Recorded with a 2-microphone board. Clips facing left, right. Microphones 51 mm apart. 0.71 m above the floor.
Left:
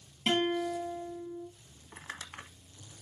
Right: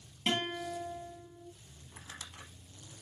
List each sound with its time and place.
0.3 s a guitar: 15° left (ahead or behind), 3 m
1.9 s crumpling: 55° left (ahead or behind), 0.8 m